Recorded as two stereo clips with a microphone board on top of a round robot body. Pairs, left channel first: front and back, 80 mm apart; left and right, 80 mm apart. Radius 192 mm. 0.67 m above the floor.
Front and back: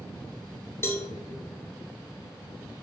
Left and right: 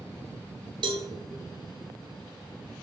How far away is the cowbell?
About 1.3 m.